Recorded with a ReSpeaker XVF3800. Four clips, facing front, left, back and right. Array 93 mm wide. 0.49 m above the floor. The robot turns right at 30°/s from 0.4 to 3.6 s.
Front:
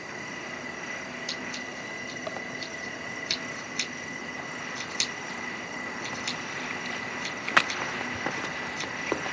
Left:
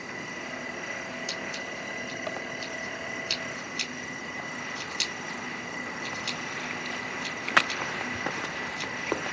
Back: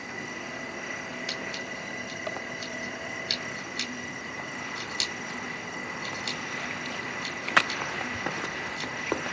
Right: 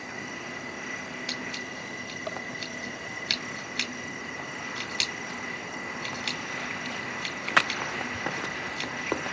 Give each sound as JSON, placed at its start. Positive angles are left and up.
{"t": 1.3, "sound": "scissors", "azimuth_deg": -140, "distance_m": 2.0}